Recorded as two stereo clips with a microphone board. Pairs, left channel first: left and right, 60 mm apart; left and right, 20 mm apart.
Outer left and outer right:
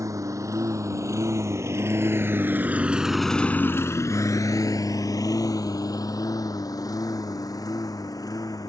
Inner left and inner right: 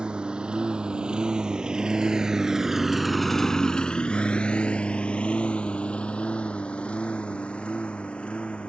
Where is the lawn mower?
65° right (ahead or behind); by 8.7 s 85° left.